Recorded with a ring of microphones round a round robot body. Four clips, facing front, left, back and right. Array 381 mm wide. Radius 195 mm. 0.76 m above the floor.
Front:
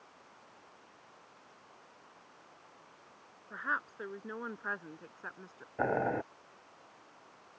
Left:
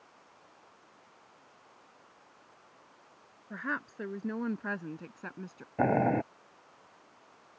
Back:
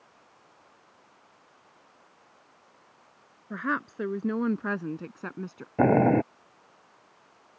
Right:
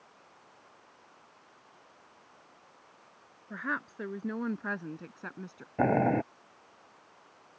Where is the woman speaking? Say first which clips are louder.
Right 1 dB, back 7 dB; straight behind; by 5.7 s 175° left.